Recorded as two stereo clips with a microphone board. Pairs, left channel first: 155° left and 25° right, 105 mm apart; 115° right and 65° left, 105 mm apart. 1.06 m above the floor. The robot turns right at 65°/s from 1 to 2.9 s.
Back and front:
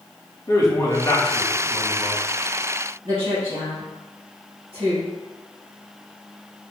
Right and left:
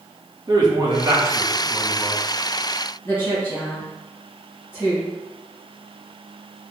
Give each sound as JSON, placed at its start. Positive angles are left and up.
{"t": 0.5, "sound": "a man speaking", "azimuth_deg": 105, "distance_m": 0.9}
{"t": 3.0, "sound": "a woman speaking", "azimuth_deg": -60, "distance_m": 2.0}